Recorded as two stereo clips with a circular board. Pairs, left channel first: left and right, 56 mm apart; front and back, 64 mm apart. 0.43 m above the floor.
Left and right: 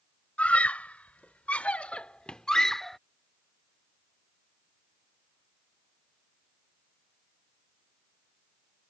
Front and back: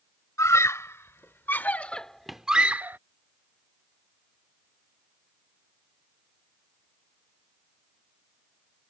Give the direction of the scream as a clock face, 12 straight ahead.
11 o'clock.